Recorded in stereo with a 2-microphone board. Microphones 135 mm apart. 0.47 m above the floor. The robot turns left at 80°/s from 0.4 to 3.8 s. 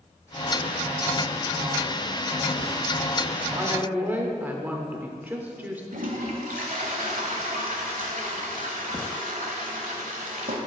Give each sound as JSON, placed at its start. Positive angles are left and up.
{"t": 3.5, "sound": "a woman speaking", "side_deg": -30, "distance_m": 0.9}
{"t": 5.9, "sound": "a toilet flushing", "side_deg": -85, "distance_m": 0.9}